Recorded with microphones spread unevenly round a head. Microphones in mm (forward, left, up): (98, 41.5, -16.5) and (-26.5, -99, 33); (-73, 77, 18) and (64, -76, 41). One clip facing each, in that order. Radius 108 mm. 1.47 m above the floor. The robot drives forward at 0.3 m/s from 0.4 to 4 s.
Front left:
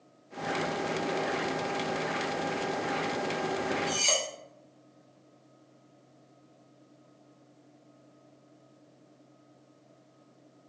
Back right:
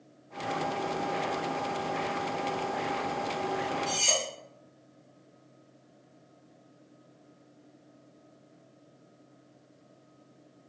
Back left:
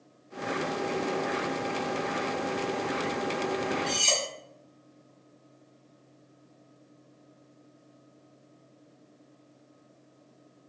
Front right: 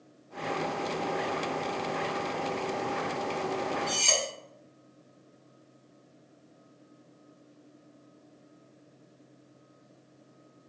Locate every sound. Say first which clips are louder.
3.9 s cutlery clinking: front left 1 dB, back left 1 dB; 175° right, 1.2 m